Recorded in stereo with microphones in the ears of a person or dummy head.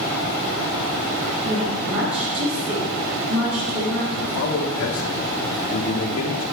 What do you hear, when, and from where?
1.4 s a woman speaking: 65° right (ahead or behind), 3 m
4.1 s a man speaking: 75° left (ahead or behind), 1.2 m